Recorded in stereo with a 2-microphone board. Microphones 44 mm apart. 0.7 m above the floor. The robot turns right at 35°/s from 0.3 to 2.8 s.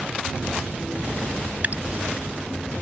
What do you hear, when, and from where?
1.6 s dripping: 40° right (ahead or behind); by 1.8 s 35° right (ahead or behind)